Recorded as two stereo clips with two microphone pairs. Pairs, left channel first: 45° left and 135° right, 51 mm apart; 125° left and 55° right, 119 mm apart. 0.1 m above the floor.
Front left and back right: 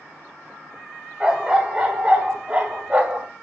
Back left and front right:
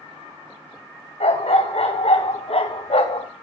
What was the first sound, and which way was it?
A dog barking, 150° left.